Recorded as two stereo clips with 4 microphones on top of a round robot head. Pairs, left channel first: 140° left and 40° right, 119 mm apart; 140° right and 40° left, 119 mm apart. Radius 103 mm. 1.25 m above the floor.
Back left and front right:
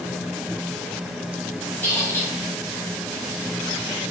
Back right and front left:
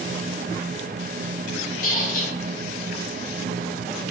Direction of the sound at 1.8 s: 145° right.